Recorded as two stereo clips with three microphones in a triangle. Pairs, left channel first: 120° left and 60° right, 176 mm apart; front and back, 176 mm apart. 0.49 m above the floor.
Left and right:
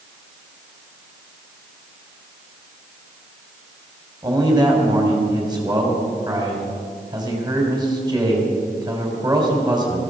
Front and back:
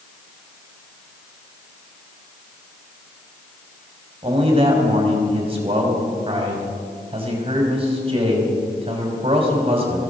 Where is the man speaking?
125° right, 3 m.